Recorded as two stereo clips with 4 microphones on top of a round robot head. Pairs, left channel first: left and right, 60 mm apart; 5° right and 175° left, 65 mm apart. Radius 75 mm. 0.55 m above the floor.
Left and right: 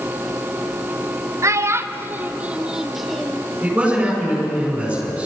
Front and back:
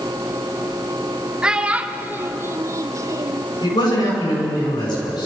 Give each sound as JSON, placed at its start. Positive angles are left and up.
{"t": 1.4, "sound": "a child speaking", "azimuth_deg": -110, "distance_m": 1.2}
{"t": 3.6, "sound": "a man speaking", "azimuth_deg": -15, "distance_m": 8.0}